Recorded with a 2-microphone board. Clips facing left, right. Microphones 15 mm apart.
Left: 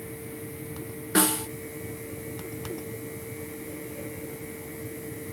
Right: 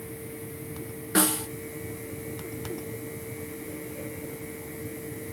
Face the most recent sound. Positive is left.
turn(degrees=5)  # may be behind; listen again after turning